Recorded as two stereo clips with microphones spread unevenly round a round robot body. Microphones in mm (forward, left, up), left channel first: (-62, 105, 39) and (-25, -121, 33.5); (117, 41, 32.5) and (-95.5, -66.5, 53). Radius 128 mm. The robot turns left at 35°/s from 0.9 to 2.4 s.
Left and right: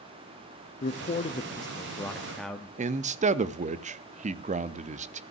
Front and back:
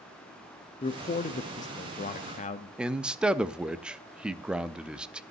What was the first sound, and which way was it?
A man speaking, 60° left.